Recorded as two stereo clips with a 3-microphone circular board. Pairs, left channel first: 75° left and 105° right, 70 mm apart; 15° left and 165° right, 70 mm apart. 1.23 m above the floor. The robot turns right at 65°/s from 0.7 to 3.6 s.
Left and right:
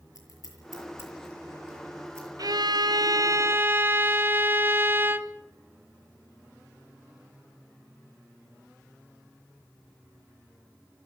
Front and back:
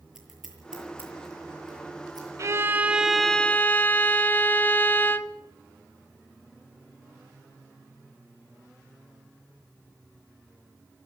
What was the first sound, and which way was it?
Scissors, 110° left.